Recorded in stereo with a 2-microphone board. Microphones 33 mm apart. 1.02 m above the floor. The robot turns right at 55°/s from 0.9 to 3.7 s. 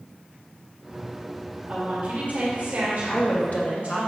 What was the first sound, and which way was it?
A woman speaking, 155° right.